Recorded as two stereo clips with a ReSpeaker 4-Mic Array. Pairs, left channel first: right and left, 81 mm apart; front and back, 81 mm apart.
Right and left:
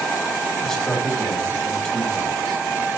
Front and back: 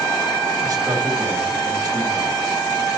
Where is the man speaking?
170° right, 2 m.